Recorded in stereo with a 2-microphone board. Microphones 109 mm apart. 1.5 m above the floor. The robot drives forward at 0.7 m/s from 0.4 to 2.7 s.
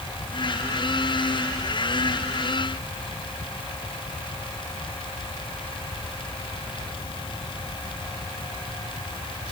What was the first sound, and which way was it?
Only background noise.